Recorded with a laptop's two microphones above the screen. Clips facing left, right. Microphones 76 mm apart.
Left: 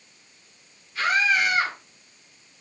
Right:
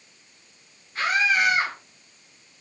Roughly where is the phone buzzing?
I don't hear a phone buzzing.